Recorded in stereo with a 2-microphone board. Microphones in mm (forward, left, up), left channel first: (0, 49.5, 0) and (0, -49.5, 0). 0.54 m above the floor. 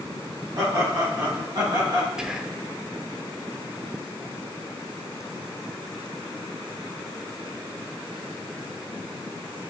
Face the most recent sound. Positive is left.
turn(degrees=-5)  # may be behind; listen again after turning